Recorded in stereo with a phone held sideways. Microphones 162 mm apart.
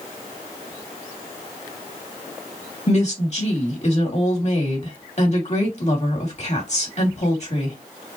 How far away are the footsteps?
I don't hear footsteps.